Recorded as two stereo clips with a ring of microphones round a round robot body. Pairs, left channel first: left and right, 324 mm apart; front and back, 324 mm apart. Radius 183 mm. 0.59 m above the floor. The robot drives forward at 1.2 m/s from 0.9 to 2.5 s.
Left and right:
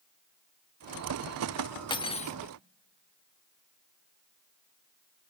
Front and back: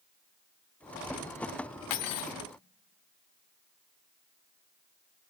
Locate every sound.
1.9 s cutlery clinking: 15° left, 1.3 m; by 2.4 s 25° left, 0.9 m